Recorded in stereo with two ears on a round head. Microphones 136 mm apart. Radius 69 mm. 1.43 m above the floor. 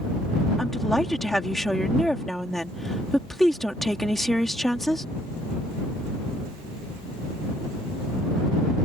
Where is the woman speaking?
5° left (ahead or behind).